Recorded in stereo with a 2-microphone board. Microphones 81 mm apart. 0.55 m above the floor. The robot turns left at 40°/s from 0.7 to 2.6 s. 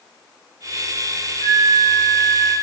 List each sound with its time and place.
1.4 s a flute: 45° left, 0.5 m; by 2.5 s straight ahead, 0.5 m